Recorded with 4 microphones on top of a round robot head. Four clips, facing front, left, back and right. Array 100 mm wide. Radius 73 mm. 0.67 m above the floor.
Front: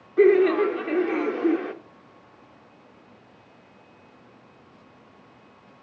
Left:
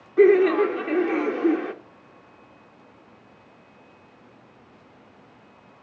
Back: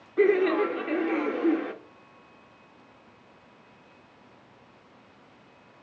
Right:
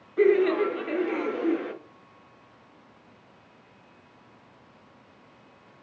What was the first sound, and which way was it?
Laughter, 70° left.